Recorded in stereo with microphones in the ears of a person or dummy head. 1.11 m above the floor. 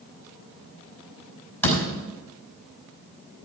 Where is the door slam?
10° left (ahead or behind), 5 m.